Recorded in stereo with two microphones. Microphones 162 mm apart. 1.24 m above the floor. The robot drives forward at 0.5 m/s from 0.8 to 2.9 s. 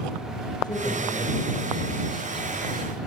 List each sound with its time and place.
0.6 s a man speaking: 25° left (ahead or behind), 6 m; by 2.9 s 30° left (ahead or behind), 5 m